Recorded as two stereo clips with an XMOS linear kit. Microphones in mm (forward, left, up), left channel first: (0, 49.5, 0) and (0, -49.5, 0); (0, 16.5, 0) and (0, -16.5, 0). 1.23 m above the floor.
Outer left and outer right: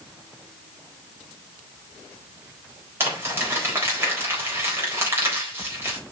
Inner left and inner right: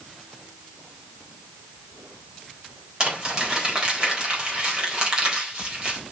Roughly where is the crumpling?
Right.